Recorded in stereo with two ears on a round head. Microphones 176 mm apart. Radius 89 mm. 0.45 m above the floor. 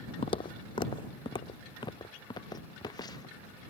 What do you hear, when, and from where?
0.2 s footsteps: 30° left (ahead or behind); by 3.4 s 20° left (ahead or behind)